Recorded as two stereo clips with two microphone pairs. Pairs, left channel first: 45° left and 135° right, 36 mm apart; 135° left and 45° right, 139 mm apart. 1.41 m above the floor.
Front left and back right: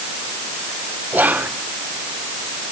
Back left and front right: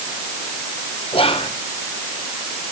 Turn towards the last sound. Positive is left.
turn(degrees=-175)